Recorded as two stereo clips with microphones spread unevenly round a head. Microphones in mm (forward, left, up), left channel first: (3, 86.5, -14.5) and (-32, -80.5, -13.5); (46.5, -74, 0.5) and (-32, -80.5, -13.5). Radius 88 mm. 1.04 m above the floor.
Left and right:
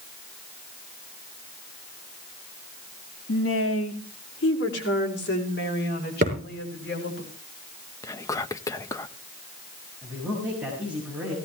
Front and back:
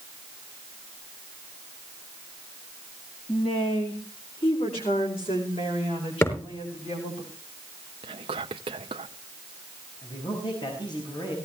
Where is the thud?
50° right, 7 m.